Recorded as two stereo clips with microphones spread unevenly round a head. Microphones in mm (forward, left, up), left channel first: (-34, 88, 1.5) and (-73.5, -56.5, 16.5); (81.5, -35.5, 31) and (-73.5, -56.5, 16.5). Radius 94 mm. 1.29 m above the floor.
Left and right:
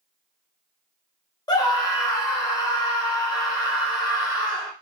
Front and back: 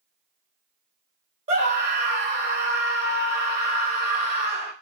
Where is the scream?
135° left, 1.4 m.